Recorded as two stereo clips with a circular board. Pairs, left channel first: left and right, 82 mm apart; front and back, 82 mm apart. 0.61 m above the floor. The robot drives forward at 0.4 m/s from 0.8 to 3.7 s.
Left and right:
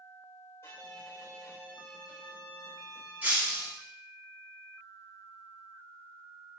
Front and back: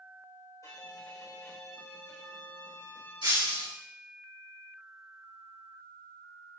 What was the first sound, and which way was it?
A violin, 40° left.